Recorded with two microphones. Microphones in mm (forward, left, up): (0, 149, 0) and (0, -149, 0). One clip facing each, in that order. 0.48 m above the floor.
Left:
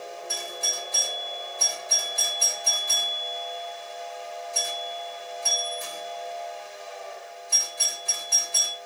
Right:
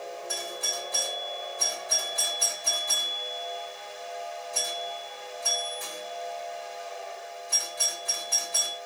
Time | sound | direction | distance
0.3 | a doorbell | 35° right (ahead or behind) | 2.5 m